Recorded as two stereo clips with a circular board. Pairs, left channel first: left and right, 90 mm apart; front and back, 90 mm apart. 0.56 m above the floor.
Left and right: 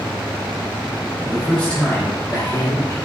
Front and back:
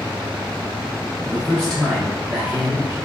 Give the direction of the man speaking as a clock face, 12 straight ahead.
12 o'clock.